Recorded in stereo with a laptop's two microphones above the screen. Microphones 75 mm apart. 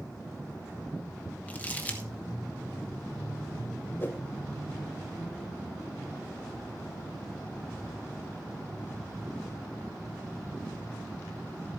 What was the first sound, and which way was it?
Crumpling, 20° left (ahead or behind).